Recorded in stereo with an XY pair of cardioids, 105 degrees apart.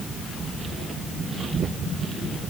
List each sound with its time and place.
Only background noise.